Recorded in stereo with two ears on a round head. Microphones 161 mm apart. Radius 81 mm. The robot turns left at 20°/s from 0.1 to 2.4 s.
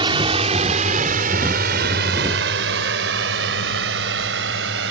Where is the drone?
25° right (ahead or behind); by 4.9 s 70° right (ahead or behind).